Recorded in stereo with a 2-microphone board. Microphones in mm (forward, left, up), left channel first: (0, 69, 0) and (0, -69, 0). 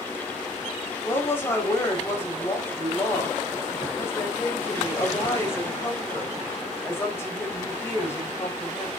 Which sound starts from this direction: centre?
A woman speaking, at 1.1 s.